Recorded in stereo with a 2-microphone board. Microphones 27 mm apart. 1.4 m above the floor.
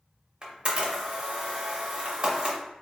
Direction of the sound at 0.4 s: 45° right (ahead or behind).